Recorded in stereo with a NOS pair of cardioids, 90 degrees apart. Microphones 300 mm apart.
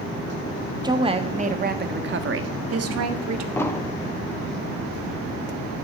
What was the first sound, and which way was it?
A woman speaking, 15° right.